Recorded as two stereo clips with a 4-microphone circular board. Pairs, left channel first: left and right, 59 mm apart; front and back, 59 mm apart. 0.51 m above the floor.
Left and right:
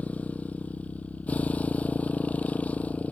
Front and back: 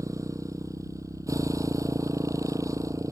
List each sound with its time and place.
0.0 s a motorcycle: 155° left